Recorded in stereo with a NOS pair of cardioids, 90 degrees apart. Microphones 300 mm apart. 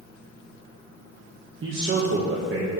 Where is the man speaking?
40° right, 1.4 m.